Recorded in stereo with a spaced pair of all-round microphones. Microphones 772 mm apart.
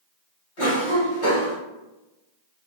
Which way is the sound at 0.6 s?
80° left.